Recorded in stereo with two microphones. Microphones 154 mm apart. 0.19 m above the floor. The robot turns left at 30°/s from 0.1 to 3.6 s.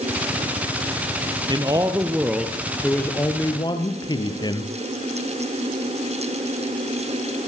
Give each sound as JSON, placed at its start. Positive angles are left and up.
{"t": 1.5, "sound": "a man speaking", "azimuth_deg": -145, "distance_m": 3.5}